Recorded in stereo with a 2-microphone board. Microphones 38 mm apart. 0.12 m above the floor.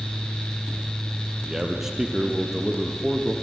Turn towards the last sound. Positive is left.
turn(degrees=-10)  # may be behind; listen again after turning